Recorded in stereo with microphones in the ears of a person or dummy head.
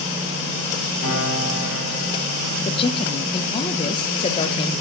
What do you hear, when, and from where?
1.0 s a piano: 45° left (ahead or behind), 3 m
2.6 s a woman speaking: 30° left (ahead or behind), 0.5 m